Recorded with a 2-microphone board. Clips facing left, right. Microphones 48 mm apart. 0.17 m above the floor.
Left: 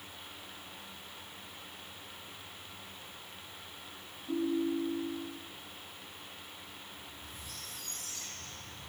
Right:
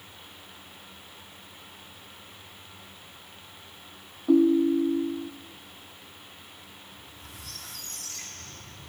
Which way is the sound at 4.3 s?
65° right (ahead or behind).